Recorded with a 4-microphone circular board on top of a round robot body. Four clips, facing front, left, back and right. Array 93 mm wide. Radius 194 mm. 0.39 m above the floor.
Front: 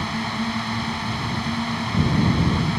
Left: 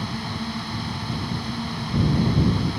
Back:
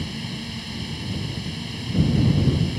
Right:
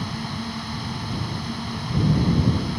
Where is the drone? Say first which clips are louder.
Even, front 7 dB; straight ahead.